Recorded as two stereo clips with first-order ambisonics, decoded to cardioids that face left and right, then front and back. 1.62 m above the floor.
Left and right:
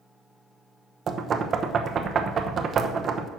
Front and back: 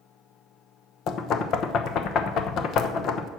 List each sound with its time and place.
1.1 s knocking: 35° right, 0.9 m